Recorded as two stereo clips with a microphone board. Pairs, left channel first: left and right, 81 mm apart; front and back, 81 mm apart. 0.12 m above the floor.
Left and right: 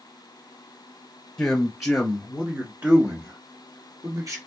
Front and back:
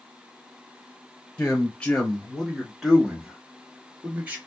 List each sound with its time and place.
1.4 s a man speaking: 20° left, 1.3 m; by 4.4 s 115° right, 1.8 m